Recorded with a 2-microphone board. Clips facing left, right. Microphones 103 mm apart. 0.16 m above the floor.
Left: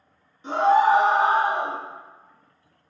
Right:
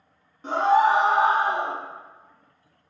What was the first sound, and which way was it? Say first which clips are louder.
A scream: left 1 dB; 50° right (ahead or behind).